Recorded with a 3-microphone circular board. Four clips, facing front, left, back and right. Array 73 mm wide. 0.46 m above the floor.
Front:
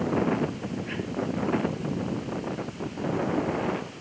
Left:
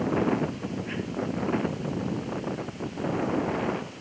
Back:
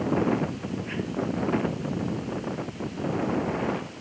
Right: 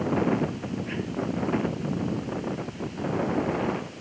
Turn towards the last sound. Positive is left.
No sound to turn to.